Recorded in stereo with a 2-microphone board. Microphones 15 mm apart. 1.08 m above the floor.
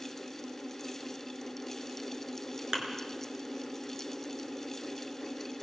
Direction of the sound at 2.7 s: 40° right (ahead or behind).